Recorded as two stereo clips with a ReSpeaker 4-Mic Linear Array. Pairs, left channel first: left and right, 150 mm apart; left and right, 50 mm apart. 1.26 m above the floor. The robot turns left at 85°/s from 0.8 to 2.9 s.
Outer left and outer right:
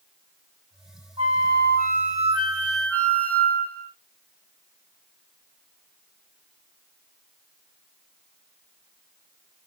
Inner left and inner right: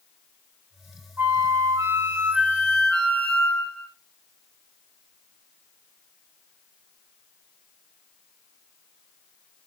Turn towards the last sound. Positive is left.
turn(degrees=170)